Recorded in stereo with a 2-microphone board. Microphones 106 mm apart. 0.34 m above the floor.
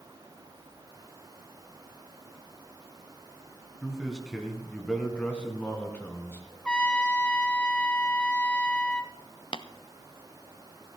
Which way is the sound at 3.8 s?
5° right (ahead or behind).